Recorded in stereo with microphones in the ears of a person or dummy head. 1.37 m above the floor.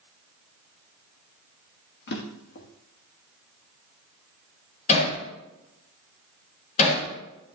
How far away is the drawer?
About 1.5 m.